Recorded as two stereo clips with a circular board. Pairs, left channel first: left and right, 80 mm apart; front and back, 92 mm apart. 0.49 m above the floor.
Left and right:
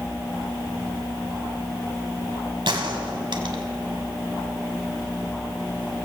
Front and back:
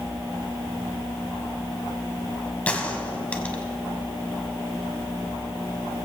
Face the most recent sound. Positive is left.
turn(degrees=-75)